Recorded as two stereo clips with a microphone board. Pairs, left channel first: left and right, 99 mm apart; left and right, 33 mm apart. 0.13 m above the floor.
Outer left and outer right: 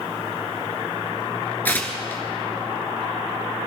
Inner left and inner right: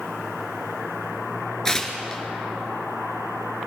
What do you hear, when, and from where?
1.6 s tearing paper: 20° left (ahead or behind), 2 m